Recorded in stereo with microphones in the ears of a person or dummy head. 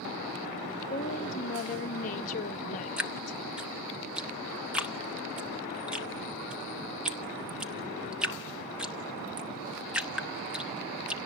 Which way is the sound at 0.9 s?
45° left (ahead or behind).